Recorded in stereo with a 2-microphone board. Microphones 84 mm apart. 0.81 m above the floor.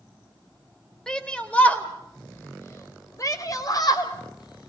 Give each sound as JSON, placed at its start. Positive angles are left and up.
{"t": 1.1, "sound": "a shout", "side_deg": 10, "distance_m": 3.5}